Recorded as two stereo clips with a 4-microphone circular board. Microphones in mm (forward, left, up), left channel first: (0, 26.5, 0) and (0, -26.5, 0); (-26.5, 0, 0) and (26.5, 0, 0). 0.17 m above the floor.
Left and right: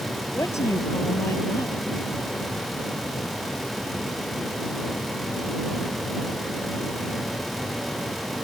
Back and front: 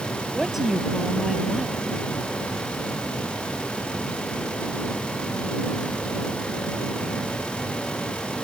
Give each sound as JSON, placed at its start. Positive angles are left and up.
{"t": 0.3, "sound": "a woman speaking", "azimuth_deg": 85}